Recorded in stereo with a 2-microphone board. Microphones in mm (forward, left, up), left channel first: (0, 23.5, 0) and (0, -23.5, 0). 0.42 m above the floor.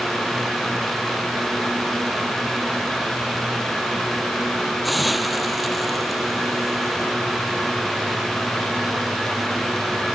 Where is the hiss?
Centre (ahead or behind).